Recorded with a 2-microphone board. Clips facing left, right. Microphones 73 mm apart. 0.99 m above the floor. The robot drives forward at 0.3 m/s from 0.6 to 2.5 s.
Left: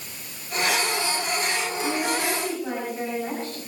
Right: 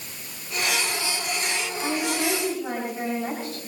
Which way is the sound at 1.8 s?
10° right (ahead or behind).